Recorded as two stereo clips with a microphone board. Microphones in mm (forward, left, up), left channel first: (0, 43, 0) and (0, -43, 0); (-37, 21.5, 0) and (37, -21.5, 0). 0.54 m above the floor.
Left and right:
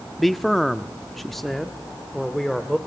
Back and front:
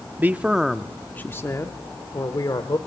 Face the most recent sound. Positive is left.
turn(degrees=180)